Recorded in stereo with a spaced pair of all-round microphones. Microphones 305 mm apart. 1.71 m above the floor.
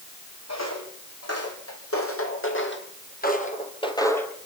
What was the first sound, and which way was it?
Footsteps, 60° left (ahead or behind).